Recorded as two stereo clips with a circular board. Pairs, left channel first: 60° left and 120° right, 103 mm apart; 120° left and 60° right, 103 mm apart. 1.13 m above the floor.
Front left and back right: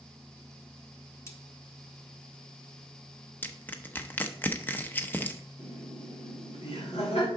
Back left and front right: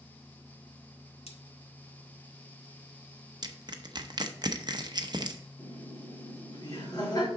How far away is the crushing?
About 0.8 m.